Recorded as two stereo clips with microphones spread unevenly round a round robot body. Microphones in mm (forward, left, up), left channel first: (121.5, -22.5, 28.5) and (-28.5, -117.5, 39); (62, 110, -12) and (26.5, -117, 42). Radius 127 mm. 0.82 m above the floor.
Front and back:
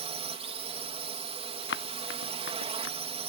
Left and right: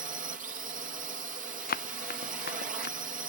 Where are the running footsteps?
30° left; by 3.0 s 35° left.